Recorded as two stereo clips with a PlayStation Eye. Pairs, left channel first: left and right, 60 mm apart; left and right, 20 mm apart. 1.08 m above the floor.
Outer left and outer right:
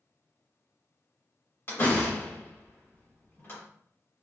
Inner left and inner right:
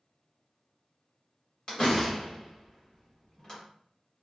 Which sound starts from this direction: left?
A door slam, at 1.7 s.